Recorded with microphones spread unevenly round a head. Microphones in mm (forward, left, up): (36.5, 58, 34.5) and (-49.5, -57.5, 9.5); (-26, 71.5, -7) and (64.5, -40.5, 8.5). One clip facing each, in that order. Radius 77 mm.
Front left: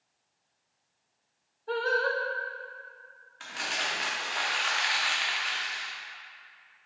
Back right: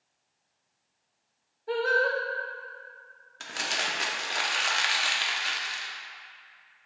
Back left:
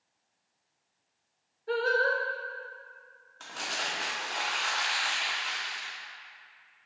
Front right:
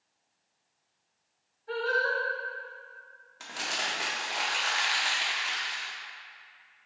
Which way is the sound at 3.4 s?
135° right.